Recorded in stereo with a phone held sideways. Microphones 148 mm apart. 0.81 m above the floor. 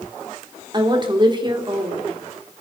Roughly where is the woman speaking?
Right.